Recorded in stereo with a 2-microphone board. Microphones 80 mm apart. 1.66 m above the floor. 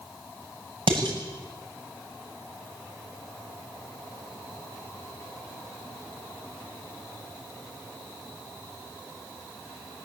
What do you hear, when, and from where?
0.9 s dishes clattering: 85° right, 7.5 m